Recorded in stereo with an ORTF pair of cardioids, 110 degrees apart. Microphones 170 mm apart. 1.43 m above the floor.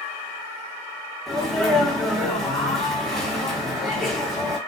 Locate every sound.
1.3 s a sneeze: straight ahead, 1.3 m